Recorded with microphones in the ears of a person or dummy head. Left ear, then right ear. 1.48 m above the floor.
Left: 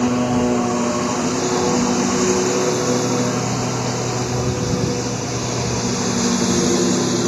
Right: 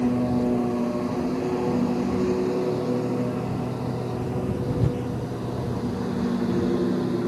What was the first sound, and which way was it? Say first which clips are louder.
A lawn mower: left 6 dB; 50° left (ahead or behind).